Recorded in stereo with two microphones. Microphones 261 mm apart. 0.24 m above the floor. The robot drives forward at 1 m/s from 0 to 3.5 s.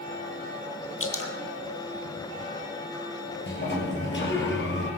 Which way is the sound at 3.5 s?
45° left (ahead or behind).